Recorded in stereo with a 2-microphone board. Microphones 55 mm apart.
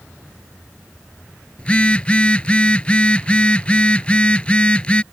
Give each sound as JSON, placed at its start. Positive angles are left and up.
{"t": 1.6, "sound": "a phone buzzing", "side_deg": 25}